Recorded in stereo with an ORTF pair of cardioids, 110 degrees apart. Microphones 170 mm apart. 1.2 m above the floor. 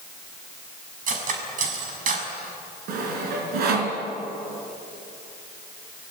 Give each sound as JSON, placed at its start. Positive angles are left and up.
{"t": 1.1, "sound": "cutlery clinking", "azimuth_deg": -50, "distance_m": 6.0}
{"t": 2.9, "sound": "sawing", "azimuth_deg": -70, "distance_m": 5.5}